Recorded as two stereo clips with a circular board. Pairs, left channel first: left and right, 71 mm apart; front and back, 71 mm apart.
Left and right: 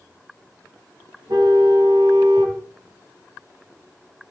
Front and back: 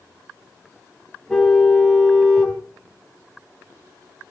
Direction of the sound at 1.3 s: 80° right.